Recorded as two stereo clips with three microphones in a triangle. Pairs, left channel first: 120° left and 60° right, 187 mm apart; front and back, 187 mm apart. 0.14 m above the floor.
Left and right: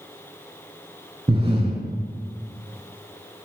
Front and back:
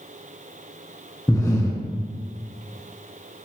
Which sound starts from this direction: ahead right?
Breathing, at 1.3 s.